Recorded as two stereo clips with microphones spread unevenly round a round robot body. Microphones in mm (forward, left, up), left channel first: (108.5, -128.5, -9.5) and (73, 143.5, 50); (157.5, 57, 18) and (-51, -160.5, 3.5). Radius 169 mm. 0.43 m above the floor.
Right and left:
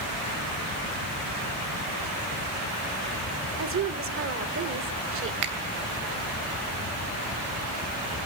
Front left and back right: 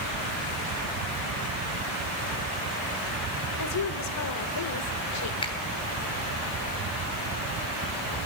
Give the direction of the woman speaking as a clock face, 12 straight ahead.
10 o'clock.